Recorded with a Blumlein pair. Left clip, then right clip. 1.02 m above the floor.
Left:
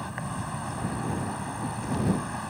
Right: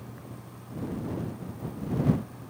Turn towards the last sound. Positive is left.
turn(degrees=50)